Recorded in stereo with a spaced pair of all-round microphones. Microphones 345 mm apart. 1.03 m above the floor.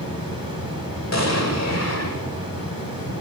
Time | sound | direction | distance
0.0 | a fan | 75° left (ahead or behind) | 1.7 m
1.1 | an explosion | 50° left (ahead or behind) | 1.0 m